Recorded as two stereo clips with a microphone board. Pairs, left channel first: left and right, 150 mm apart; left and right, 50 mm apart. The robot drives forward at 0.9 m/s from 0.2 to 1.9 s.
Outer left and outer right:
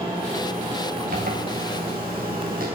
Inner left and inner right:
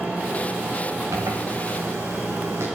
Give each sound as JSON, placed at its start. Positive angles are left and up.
{"t": 1.1, "sound": "a zipper", "side_deg": -80, "distance_m": 4.0}